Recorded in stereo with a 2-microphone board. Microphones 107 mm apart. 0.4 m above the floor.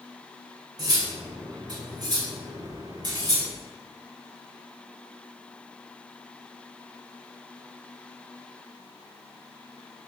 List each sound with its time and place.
0.8 s cutlery clinking: 40° right (ahead or behind), 0.7 m